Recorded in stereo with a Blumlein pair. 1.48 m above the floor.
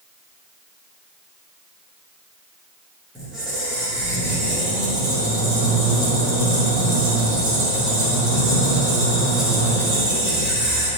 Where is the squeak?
15° right, 1.5 m.